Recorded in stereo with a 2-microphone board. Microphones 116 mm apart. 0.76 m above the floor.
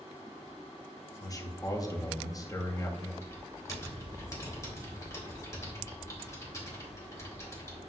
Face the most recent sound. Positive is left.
turn(degrees=30)  # may be behind; listen again after turning